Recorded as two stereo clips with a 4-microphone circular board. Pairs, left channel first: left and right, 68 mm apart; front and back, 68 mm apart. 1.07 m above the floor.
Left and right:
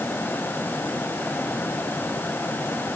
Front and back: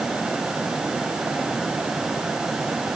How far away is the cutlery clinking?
I don't hear cutlery clinking.